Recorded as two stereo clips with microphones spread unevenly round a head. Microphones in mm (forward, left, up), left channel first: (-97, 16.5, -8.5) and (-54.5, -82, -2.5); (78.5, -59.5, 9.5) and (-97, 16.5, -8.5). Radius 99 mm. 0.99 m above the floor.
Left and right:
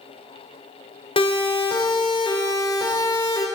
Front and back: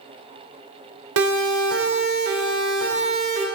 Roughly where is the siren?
Behind left.